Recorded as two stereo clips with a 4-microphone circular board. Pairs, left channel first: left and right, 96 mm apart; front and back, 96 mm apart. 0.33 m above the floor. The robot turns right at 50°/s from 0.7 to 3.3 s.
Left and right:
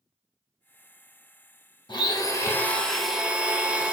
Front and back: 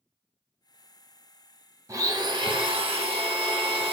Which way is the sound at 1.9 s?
125° left.